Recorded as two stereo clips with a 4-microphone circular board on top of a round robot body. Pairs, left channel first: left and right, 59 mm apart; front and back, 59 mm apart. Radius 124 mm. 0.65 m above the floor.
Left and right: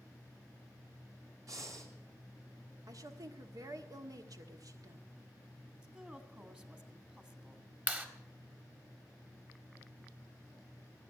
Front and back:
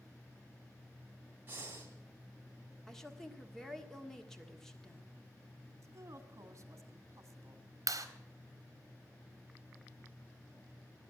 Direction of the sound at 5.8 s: 160° right.